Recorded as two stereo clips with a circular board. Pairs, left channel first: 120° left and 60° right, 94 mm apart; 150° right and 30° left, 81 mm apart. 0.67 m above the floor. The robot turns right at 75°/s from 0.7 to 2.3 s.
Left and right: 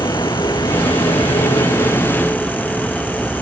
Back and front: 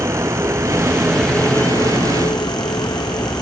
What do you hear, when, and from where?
0.0 s a vehicle: 80° left; by 3.4 s 160° right